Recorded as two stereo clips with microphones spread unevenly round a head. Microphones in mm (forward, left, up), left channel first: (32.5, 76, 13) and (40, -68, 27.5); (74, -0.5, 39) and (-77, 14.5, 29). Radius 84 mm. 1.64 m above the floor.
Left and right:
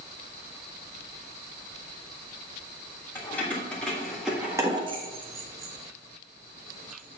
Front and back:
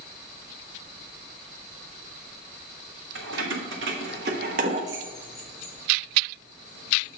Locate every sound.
3.1 s keys jangling: 175° left, 3 m; by 7.2 s 30° right, 3.5 m